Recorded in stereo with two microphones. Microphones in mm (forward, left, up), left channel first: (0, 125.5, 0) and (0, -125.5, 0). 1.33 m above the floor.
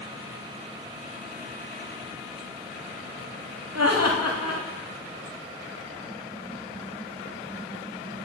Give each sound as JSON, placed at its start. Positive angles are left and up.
{"t": 3.8, "sound": "laughter", "side_deg": -90, "distance_m": 2.5}